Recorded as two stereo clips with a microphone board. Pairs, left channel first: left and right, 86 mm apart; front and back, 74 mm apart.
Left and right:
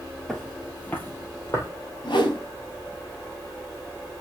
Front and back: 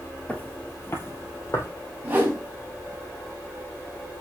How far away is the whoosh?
About 4.5 m.